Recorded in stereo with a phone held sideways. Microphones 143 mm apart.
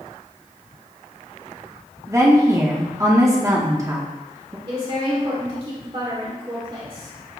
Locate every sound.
2.1 s a woman speaking: 20° right (ahead or behind), 0.5 m
4.7 s a woman speaking: 40° right (ahead or behind), 0.9 m